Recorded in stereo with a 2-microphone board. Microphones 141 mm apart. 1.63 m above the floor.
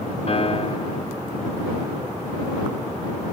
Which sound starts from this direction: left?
A piano, at 0.3 s.